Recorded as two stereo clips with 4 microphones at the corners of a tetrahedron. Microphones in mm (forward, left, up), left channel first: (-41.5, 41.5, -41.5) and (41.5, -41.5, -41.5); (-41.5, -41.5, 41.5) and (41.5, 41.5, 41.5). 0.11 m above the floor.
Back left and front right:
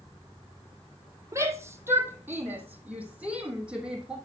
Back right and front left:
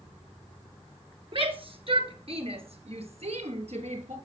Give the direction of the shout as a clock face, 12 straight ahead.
11 o'clock.